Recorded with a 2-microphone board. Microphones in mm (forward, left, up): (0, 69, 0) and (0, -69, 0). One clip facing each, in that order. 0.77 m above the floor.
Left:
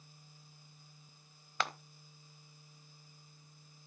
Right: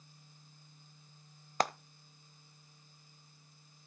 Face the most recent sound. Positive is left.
turn(degrees=-40)  # may be behind; listen again after turning